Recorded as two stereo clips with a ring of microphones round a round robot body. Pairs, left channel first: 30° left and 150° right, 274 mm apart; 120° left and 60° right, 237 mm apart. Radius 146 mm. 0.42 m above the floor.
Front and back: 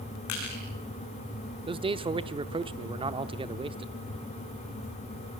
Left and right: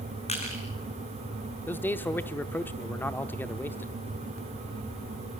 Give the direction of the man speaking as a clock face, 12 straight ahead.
6 o'clock.